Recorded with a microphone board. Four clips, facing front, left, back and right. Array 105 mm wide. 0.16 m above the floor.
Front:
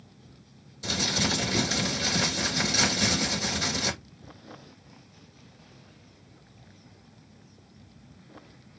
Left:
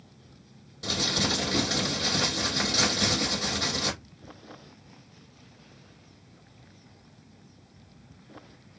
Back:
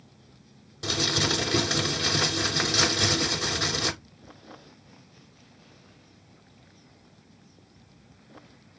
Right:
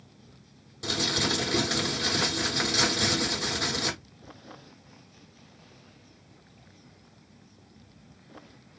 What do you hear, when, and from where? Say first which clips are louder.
0.8 s crumpling: even, back 2 dB; 165° right, 5 m